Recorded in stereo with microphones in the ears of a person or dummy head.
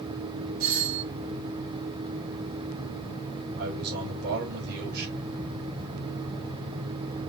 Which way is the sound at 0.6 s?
55° right (ahead or behind).